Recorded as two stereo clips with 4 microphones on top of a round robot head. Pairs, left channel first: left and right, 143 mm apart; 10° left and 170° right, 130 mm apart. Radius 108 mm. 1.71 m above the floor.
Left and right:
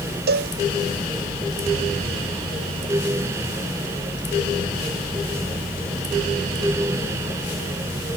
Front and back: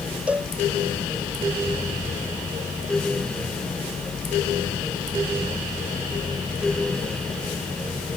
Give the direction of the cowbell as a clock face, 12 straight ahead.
3 o'clock.